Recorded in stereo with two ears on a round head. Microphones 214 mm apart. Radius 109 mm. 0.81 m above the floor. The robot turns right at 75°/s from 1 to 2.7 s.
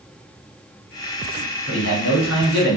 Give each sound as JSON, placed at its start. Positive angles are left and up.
{"t": 1.7, "sound": "a man speaking", "azimuth_deg": 50, "distance_m": 1.5}